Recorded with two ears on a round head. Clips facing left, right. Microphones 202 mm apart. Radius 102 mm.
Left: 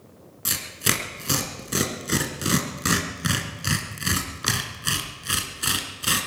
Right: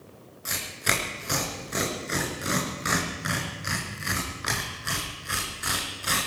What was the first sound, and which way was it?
Tearing paper, 50° left (ahead or behind).